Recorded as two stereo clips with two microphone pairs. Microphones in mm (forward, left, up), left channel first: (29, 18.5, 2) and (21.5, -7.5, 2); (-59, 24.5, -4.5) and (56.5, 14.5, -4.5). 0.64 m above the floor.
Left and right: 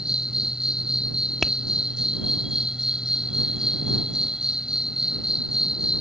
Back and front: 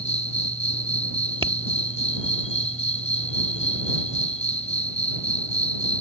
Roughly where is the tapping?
Ahead.